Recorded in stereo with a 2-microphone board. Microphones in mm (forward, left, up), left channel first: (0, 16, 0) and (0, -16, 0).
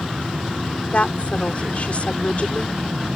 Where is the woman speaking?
45° left (ahead or behind).